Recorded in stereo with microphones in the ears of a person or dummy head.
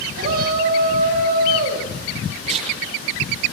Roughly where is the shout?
Right.